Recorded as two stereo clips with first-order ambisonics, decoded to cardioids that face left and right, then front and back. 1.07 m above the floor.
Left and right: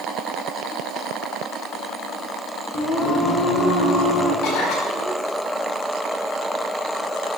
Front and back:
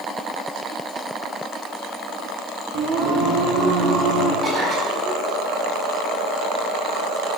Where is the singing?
150° left, 2.5 m.